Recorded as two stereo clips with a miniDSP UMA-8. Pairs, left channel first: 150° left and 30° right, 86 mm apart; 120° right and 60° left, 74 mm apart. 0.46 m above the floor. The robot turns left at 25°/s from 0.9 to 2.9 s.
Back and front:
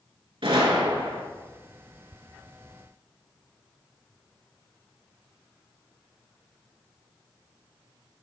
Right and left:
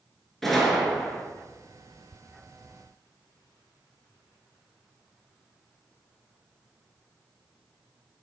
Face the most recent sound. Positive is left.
turn(degrees=-80)